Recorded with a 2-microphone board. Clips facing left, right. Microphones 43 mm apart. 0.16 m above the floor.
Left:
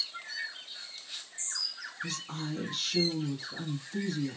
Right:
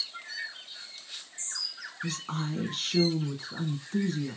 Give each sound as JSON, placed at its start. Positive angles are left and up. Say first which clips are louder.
{"t": 2.0, "sound": "a woman speaking", "louder": "right 4 dB", "side_deg": -45, "distance_m": 1.4}